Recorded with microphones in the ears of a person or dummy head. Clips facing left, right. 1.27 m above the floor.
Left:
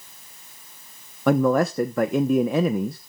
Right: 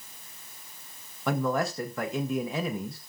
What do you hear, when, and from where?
1.3 s a man speaking: 50° left (ahead or behind), 0.7 m